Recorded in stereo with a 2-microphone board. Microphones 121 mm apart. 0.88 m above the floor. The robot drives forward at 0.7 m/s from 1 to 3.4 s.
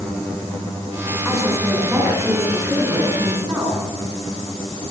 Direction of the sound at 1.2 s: Centre (ahead or behind).